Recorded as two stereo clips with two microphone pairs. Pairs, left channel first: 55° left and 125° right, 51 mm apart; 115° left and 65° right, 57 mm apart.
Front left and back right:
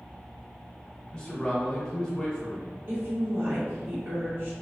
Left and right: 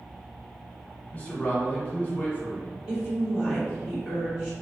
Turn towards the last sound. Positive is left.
turn(degrees=-140)